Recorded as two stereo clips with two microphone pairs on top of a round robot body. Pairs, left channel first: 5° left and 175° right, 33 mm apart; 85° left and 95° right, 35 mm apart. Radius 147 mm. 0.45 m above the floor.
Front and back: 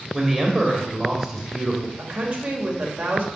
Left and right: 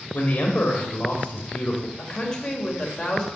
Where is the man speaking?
115° left, 2 m.